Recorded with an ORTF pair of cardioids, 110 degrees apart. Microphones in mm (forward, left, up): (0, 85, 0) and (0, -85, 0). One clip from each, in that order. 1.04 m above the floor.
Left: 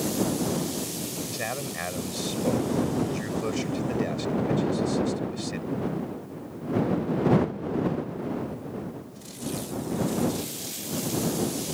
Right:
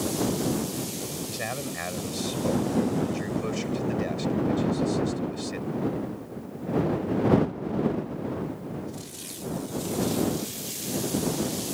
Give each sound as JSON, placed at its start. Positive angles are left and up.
{"t": 1.3, "sound": "a man speaking", "azimuth_deg": 5}